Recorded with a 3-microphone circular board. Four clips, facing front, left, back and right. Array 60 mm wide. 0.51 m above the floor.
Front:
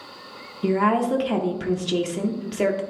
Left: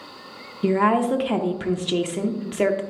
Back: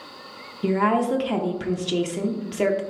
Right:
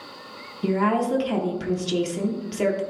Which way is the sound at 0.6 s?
85° left.